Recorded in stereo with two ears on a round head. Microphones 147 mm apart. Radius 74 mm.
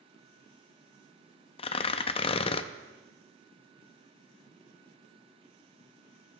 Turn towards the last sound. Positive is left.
turn(degrees=35)  # may be behind; listen again after turning